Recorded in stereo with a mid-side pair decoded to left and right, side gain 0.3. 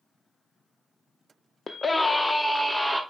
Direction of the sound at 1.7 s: 50° left.